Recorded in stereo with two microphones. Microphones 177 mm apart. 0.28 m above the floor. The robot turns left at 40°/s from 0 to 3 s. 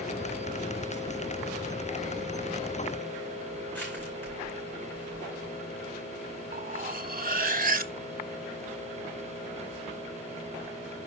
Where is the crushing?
10° left (ahead or behind), 6.5 m.